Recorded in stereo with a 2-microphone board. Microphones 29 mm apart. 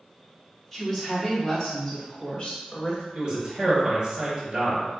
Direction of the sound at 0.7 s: Centre (ahead or behind).